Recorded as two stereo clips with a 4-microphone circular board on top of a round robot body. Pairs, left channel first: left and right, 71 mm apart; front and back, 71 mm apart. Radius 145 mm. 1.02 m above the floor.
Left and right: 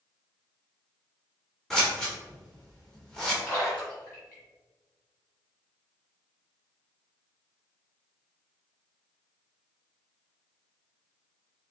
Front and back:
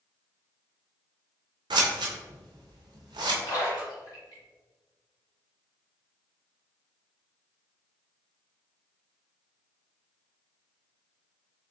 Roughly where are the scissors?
Behind.